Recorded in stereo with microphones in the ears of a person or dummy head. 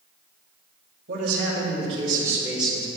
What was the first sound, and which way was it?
A man speaking, 60° right (ahead or behind).